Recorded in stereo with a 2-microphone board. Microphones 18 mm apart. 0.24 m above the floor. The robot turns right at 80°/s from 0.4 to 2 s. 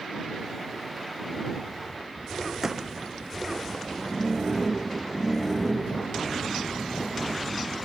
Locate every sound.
2.6 s a gunshot: 20° right (ahead or behind)